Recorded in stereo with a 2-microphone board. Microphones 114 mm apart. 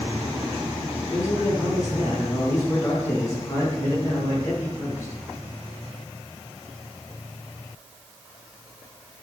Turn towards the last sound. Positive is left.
turn(degrees=30)  # may be behind; listen again after turning